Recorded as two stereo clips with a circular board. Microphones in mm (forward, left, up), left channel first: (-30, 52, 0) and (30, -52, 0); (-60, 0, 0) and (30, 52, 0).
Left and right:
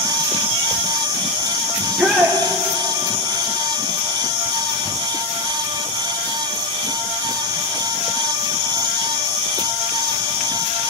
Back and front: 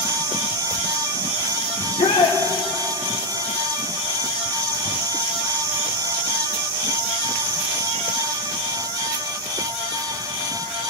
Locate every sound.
1.8 s a shout: 140° right, 1.7 m